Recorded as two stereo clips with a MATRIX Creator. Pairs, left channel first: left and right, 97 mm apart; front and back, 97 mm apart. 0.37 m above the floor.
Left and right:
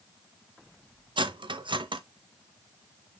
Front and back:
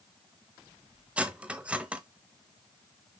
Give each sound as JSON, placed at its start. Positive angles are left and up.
{"t": 1.2, "sound": "cutlery clinking", "azimuth_deg": -105, "distance_m": 0.9}